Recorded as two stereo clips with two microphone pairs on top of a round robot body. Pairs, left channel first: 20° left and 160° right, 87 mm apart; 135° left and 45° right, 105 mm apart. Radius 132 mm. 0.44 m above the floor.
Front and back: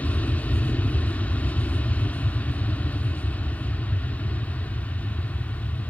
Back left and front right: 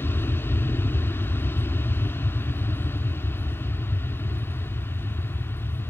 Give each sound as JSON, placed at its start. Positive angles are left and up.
{"t": 0.0, "sound": "an aircraft", "azimuth_deg": 80}